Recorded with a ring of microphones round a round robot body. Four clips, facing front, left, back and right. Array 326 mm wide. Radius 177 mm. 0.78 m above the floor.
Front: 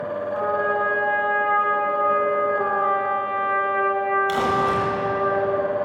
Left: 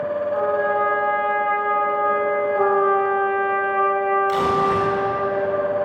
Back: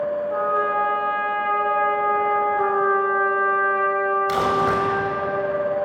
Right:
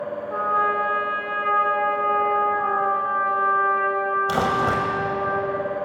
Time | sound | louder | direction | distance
0.3 | a trumpet | even, front 1 dB | 120° right | 4 m
2.6 | a trumpet | left 5 dB, back 2 dB | 100° left | 1.5 m
4.3 | crumpling | left 2 dB, back 1 dB | 100° right | 5.5 m